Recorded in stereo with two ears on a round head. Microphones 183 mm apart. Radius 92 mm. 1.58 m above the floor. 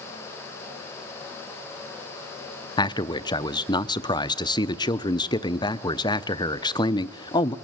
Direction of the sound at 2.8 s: 20° left (ahead or behind).